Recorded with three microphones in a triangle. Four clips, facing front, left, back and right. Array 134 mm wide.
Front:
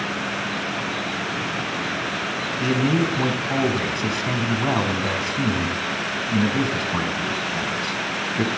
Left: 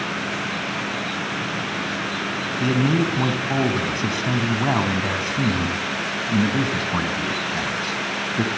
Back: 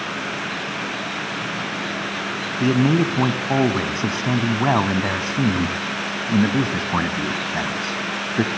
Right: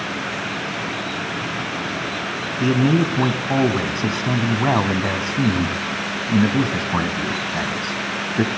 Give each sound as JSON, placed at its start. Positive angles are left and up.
{"t": 2.6, "sound": "a man speaking", "azimuth_deg": -155, "distance_m": 1.7}